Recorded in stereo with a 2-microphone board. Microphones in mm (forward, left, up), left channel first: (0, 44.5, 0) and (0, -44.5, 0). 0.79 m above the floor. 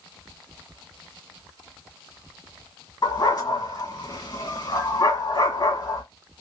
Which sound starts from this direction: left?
A dog barking, at 3.0 s.